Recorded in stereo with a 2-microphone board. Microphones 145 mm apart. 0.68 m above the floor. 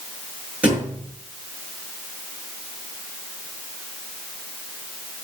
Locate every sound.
0.6 s a thud: 10° right (ahead or behind), 5.5 m